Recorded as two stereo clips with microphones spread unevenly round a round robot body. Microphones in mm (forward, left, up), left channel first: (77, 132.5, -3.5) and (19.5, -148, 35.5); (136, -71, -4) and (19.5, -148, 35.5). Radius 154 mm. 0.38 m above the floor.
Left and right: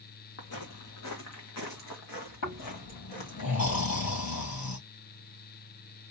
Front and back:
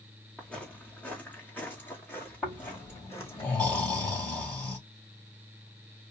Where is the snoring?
125° left, 4.5 m.